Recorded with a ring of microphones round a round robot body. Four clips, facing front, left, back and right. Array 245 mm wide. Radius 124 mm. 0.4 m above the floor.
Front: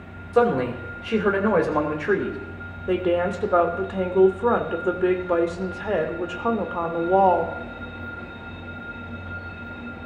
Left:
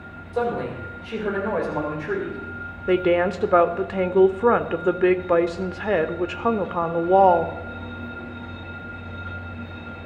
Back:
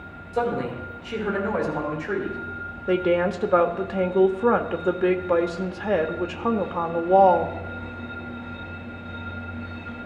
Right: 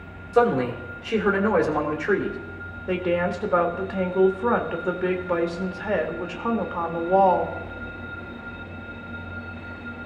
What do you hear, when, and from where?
0.3 s a man speaking: 25° right, 2 m
2.9 s a woman speaking: 105° left, 0.9 m